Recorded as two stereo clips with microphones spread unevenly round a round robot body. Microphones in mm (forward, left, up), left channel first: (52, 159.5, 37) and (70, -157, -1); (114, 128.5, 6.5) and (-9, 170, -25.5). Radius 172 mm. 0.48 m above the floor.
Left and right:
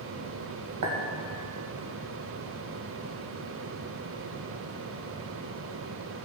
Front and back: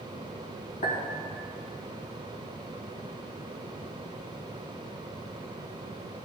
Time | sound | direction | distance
0.8 | a clink | 55° right | 2.5 m